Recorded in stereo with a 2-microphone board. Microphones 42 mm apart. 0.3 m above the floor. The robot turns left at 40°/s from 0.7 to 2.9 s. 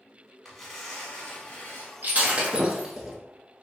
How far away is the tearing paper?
About 0.9 m.